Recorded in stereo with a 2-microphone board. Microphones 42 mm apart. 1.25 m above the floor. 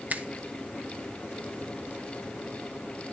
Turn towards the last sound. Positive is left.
turn(degrees=-40)  # may be behind; listen again after turning